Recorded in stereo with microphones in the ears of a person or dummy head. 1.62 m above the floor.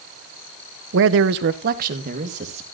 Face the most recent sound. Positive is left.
turn(degrees=-40)  # may be behind; listen again after turning